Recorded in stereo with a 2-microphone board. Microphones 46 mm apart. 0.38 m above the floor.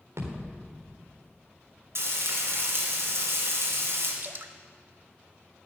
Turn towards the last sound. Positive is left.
turn(degrees=-50)  # may be behind; listen again after turning